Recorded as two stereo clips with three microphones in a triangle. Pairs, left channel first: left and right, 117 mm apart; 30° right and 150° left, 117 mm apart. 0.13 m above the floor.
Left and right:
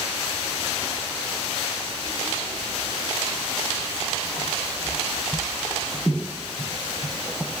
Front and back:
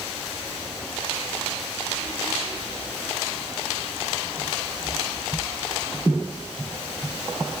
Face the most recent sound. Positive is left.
No sound to turn to.